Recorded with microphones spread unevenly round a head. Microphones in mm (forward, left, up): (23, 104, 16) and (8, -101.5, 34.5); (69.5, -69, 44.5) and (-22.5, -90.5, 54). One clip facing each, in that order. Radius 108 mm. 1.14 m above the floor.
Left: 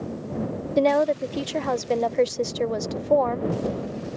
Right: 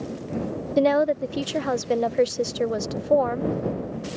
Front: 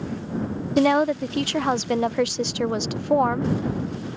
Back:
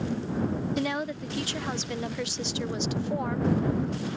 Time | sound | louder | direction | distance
0.8 | a woman speaking | even, front 11 dB | 10° right | ?